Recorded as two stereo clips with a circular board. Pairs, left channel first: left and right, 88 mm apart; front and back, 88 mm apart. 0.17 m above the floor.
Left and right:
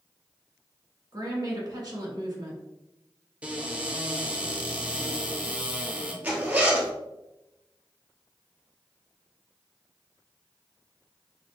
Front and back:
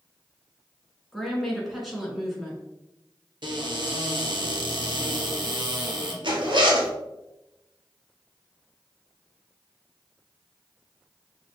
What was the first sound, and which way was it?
A woman speaking, 90° right.